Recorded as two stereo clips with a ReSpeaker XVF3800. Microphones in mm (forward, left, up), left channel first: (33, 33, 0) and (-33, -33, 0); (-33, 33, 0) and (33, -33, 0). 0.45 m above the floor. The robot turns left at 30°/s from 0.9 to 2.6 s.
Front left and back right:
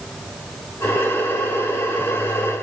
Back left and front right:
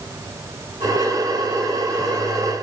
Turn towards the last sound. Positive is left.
No sound to turn to.